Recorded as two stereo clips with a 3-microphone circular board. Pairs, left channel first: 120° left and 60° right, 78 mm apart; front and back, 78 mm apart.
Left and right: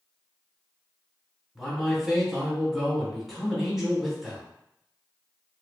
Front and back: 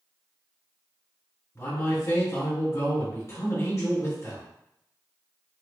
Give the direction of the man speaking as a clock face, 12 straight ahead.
11 o'clock.